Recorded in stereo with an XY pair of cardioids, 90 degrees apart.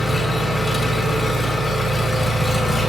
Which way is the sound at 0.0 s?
15° left.